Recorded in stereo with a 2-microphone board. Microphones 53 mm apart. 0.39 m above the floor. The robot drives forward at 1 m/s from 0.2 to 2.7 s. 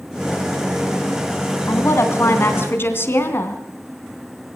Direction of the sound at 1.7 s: 60° left (ahead or behind).